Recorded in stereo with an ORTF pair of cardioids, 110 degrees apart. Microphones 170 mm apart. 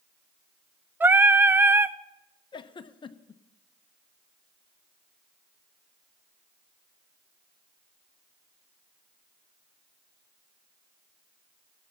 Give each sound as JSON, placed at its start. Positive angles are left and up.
{"t": 1.0, "sound": "singing", "azimuth_deg": -10, "distance_m": 0.6}
{"t": 2.5, "sound": "a giggle", "azimuth_deg": 30, "distance_m": 0.8}